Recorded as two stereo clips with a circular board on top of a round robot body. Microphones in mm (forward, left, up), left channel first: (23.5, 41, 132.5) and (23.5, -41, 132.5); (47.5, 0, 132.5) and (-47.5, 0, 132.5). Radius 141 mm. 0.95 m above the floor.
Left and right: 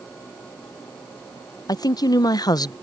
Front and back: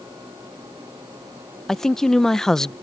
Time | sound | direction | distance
1.7 | a woman speaking | 85° left | ?